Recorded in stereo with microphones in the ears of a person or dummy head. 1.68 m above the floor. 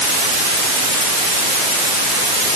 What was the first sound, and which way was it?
Only background noise.